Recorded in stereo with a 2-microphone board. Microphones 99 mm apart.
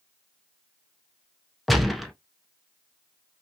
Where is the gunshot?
Centre (ahead or behind), 0.6 m.